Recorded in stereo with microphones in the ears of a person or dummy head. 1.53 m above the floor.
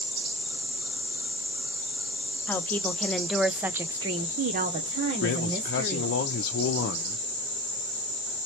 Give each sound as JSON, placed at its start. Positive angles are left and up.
{"t": 2.5, "sound": "a woman speaking", "side_deg": 5, "distance_m": 0.9}
{"t": 5.2, "sound": "a man speaking", "side_deg": 50, "distance_m": 0.7}